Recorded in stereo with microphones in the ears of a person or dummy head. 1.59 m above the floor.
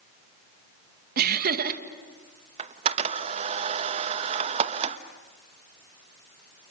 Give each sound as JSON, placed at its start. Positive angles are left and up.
{"t": 1.2, "sound": "laughter", "side_deg": -60, "distance_m": 2.0}
{"t": 2.6, "sound": "a camera shutter", "side_deg": -40, "distance_m": 1.3}